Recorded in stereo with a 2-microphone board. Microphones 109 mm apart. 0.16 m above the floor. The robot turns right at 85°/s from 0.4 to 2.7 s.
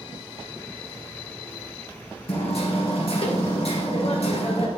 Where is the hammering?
65° left, 2 m; by 4.7 s 100° left, 2 m.